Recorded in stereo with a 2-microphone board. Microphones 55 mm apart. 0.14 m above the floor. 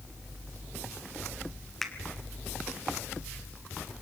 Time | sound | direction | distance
1.8 | a finger snap | 5° left (ahead or behind) | 1.6 m